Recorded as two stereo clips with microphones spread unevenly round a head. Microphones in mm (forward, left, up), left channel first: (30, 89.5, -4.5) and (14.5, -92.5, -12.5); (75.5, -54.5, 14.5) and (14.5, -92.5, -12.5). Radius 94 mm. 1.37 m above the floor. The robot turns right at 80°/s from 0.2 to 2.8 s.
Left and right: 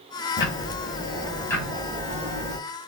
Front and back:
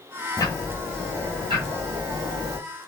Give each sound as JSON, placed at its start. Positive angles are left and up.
{"t": 0.4, "sound": "ticking", "azimuth_deg": 70, "distance_m": 2.5}